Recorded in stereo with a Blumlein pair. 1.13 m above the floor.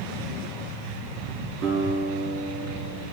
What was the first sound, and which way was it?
A guitar, 35° right.